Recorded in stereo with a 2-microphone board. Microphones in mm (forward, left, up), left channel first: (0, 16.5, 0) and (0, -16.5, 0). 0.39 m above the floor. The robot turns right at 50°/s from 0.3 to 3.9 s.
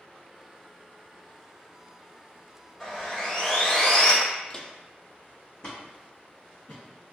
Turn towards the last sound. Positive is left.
turn(degrees=25)  # may be behind; listen again after turning